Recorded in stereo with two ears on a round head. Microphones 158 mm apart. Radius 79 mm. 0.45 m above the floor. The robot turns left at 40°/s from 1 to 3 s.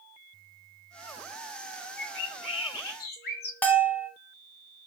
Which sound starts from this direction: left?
A bird, at 2.0 s.